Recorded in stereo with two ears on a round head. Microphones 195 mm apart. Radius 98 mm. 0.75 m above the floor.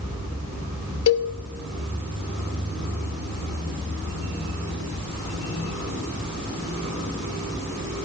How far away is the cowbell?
About 1.0 m.